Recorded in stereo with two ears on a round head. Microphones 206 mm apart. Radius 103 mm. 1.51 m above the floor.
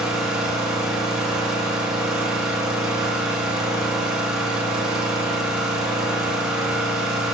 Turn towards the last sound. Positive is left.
turn(degrees=-5)  # may be behind; listen again after turning